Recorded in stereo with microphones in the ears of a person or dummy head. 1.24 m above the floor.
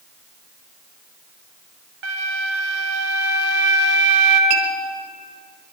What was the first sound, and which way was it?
A flute, 65° right (ahead or behind).